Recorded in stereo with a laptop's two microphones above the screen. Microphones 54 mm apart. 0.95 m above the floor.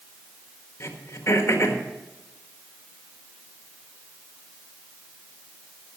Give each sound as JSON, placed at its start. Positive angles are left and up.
{"t": 0.8, "sound": "throat clearing", "side_deg": 50, "distance_m": 1.5}